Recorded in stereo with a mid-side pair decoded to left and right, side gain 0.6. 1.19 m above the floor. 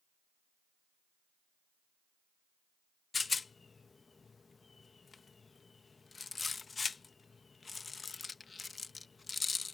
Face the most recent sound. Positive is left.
turn(degrees=25)